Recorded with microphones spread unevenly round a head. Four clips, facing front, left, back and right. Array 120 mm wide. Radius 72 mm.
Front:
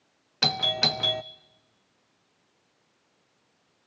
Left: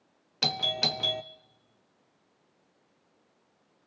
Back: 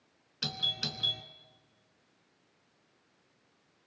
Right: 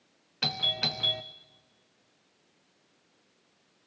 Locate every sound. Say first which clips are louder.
0.4 s a doorbell: left 3 dB, front 13 dB; 35° left, 0.5 m